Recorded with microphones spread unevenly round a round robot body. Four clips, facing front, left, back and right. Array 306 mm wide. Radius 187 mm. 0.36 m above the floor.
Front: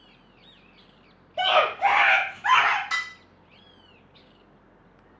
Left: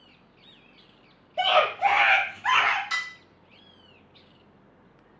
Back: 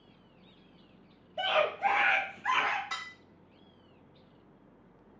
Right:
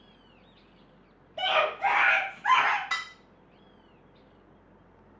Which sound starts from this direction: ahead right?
Dishes clattering, at 2.9 s.